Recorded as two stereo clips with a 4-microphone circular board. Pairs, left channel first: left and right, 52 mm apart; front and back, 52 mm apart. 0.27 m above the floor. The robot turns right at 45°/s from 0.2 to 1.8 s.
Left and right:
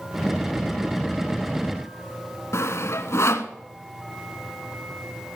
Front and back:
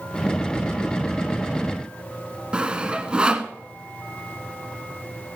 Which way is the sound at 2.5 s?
110° left.